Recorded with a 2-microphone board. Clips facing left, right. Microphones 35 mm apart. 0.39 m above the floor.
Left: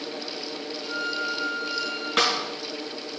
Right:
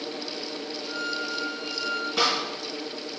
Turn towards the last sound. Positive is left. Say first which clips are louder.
# left 2 dB
turn(degrees=65)  # may be behind; listen again after turning